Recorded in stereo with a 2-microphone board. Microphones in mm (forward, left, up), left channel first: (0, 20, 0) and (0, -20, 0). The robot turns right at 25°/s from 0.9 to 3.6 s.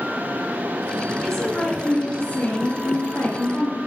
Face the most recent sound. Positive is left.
turn(degrees=65)